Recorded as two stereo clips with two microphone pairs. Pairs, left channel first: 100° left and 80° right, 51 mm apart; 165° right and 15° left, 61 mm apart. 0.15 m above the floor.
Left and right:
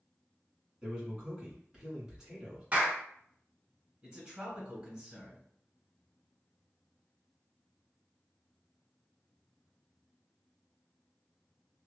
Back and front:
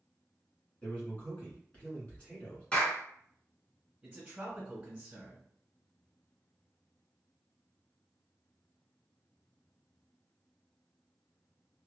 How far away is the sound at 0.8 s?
About 1.8 m.